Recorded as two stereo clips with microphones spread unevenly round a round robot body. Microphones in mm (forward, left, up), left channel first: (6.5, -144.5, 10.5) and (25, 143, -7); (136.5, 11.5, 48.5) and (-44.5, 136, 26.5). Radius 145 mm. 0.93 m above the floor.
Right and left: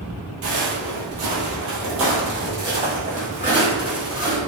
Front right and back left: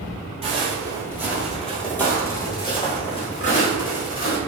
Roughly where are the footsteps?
Left.